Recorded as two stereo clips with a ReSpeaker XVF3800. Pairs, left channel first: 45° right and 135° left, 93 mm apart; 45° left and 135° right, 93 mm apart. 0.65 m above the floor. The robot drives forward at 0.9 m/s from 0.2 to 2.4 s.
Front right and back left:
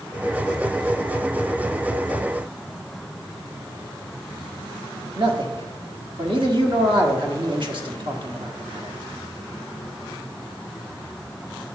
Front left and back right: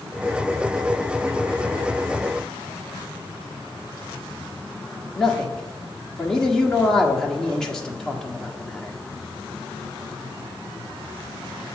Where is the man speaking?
125° left, 1.5 m.